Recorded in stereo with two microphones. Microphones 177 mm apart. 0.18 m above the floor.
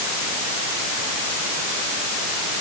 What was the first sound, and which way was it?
Only background noise.